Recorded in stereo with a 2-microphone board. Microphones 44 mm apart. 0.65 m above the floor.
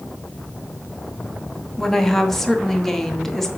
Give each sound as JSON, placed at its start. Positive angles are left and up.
{"t": 1.8, "sound": "a woman speaking", "side_deg": 5, "distance_m": 0.9}